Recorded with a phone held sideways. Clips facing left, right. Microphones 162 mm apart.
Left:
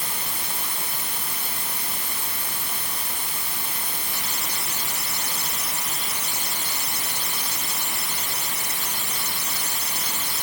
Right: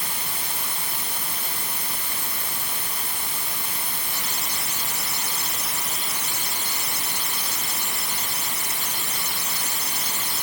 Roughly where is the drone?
I don't hear a drone.